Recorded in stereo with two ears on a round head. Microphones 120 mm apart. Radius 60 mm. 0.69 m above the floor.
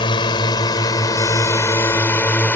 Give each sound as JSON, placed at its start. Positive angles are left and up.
{"t": 0.0, "sound": "a drone", "side_deg": 35}